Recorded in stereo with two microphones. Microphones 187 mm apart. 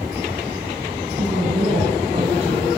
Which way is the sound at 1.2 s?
35° right (ahead or behind).